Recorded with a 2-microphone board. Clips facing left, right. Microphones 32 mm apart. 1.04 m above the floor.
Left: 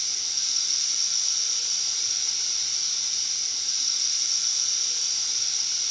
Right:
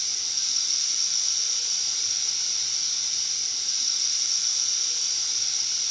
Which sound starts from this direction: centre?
Running water, at 0.0 s.